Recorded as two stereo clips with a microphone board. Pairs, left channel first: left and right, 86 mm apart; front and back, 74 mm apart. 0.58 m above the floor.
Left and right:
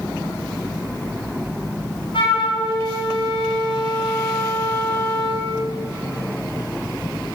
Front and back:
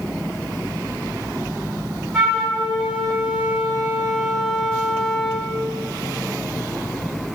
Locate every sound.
2.1 s a flute: 80° left, 5 m